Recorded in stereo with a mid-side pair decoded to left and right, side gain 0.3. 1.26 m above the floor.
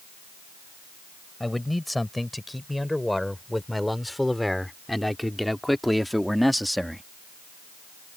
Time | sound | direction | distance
1.4 | a man speaking | 15° left | ?